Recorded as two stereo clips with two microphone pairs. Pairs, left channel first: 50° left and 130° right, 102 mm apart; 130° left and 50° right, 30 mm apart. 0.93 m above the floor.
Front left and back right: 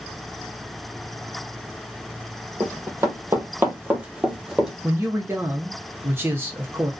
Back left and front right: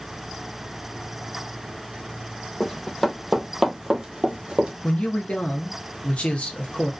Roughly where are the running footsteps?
Behind.